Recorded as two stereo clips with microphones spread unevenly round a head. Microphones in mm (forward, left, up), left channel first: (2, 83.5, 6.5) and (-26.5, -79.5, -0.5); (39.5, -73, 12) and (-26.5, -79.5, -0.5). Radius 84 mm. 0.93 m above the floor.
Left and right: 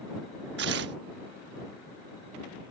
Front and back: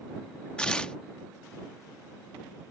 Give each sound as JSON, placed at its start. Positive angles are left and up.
{"t": 0.6, "sound": "tearing paper", "azimuth_deg": -70}